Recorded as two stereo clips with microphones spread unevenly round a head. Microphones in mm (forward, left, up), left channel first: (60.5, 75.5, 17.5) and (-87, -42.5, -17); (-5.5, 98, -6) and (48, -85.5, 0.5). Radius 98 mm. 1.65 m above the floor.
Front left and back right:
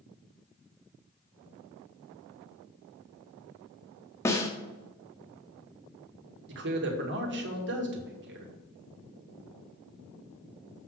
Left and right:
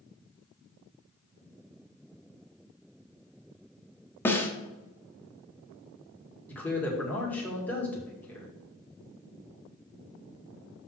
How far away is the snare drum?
About 1.2 m.